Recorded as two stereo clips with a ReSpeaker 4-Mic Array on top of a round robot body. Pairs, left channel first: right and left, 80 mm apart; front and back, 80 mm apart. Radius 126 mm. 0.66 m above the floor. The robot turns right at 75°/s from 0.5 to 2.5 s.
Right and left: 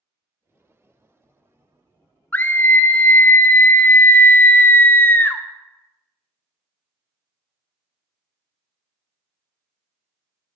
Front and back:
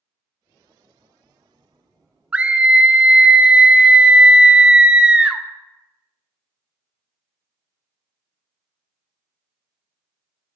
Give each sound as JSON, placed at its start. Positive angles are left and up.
{"t": 2.3, "sound": "a scream", "azimuth_deg": -125, "distance_m": 0.6}